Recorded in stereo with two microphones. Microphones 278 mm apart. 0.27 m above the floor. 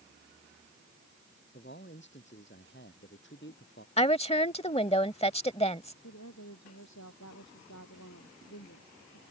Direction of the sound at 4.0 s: 20° left (ahead or behind).